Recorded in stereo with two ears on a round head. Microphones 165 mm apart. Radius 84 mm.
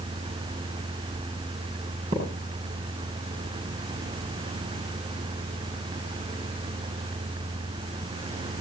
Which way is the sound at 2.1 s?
40° right (ahead or behind).